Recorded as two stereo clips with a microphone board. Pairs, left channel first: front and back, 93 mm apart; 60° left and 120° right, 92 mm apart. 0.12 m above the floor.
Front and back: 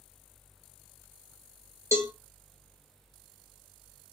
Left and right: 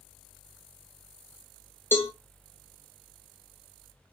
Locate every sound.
1.9 s a cowbell: 125° left, 0.6 m